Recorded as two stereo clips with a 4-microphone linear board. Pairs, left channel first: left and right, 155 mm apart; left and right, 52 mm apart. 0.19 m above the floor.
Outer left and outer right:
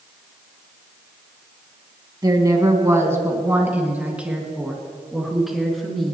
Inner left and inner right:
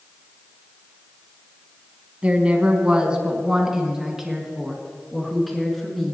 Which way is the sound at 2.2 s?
25° right (ahead or behind).